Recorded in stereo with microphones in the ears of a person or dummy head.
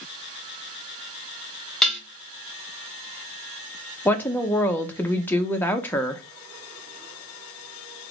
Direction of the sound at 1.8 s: Centre (ahead or behind).